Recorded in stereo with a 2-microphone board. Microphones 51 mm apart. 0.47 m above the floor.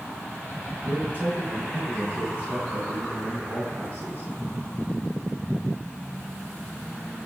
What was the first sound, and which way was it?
A man speaking, 30° right (ahead or behind).